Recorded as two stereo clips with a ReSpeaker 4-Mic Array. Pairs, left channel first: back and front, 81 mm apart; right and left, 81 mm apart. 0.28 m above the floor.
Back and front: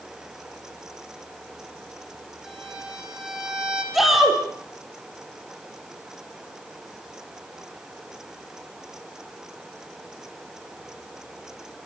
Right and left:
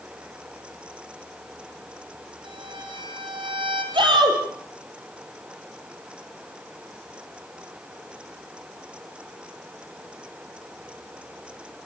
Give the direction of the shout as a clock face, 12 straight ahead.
9 o'clock.